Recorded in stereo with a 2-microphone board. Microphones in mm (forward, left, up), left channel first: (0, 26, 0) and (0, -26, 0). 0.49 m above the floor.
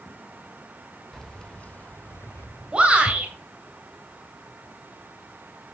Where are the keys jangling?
5° left (ahead or behind), 0.9 m; by 3.3 s 70° left (ahead or behind), 1.3 m.